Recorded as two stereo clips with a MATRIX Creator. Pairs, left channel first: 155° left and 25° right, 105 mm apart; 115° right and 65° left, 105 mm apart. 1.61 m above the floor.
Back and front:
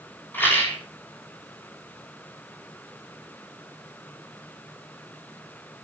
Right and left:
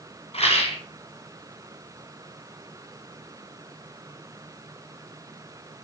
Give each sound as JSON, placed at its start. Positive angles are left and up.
{"t": 0.3, "sound": "a rattle", "azimuth_deg": -130, "distance_m": 6.0}